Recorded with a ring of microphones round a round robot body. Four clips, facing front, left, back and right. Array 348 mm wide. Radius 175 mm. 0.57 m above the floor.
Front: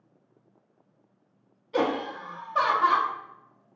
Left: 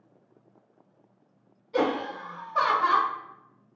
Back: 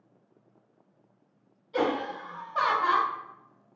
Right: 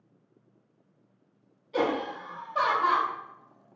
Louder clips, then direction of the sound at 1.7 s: Left 1 dB, front 1 dB; 5° left.